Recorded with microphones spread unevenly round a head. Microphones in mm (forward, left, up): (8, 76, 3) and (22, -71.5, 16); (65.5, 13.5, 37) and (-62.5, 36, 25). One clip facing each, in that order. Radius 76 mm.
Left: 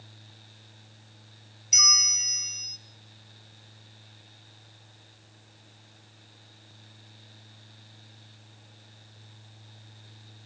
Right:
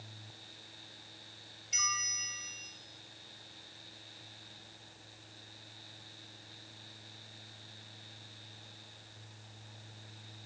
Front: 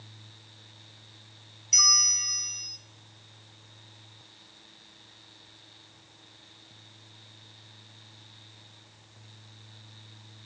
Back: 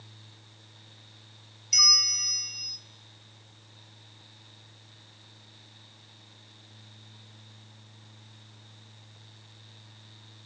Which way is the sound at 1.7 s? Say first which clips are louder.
Left 5 dB, front 2 dB; 85° left.